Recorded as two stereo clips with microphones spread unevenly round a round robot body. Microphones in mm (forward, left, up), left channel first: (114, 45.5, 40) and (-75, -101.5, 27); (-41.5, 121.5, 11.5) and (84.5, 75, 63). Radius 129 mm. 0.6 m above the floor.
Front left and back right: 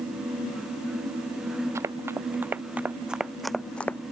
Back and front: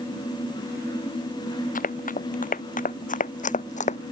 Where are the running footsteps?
135° left; by 4.0 s 120° left.